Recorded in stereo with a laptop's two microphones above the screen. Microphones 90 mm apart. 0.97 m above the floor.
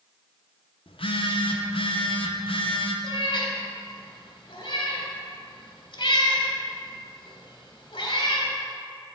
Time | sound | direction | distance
0.9 | a phone buzzing | 75° left (ahead or behind) | 0.6 m
3.0 | a cat meowing | 65° left (ahead or behind) | 1.8 m